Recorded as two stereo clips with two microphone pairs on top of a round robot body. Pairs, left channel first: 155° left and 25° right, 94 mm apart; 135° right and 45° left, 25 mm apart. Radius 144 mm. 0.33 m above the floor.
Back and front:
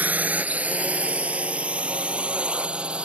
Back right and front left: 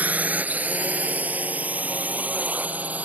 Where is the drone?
50° left; by 3.1 s 55° left.